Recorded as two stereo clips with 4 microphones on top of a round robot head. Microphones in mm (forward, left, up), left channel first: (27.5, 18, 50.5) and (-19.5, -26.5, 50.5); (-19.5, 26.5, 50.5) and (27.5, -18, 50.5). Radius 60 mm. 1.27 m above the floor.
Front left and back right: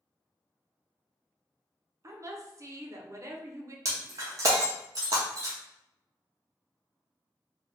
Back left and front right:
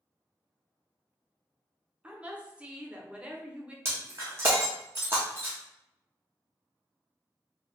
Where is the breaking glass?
100° right, 0.6 m.